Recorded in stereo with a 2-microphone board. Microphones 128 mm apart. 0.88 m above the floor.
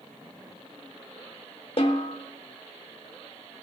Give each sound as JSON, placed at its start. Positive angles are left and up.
{"t": 1.8, "sound": "a snare drum", "side_deg": 50, "distance_m": 0.8}